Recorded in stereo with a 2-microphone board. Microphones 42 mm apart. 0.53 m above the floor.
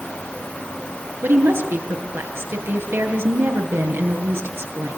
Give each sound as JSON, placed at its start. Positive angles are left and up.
{"t": 1.2, "sound": "a woman speaking", "side_deg": -75, "distance_m": 7.5}